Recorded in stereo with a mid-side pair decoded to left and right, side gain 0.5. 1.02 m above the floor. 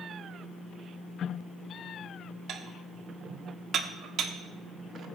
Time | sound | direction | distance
2.5 | dishes clattering | 60° right | 1.1 m